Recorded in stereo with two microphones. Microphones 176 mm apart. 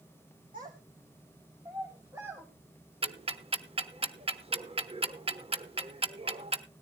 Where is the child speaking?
45° right (ahead or behind), 2 m; by 2.5 s 10° right (ahead or behind), 2.5 m.